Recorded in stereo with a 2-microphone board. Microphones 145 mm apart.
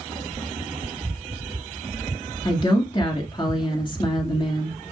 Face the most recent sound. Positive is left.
turn(degrees=35)  # may be behind; listen again after turning